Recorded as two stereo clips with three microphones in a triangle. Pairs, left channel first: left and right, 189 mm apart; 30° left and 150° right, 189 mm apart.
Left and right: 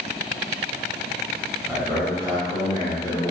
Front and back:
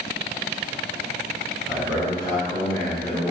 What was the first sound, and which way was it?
A man speaking, 15° right.